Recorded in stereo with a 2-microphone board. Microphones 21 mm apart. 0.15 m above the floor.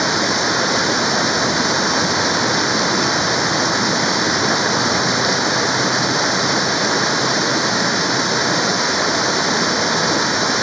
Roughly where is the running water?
Centre.